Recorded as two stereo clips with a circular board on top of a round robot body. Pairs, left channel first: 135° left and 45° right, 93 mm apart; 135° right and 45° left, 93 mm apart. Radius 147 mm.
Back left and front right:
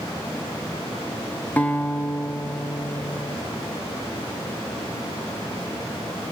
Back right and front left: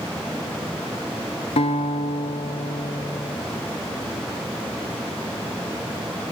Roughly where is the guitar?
Behind right.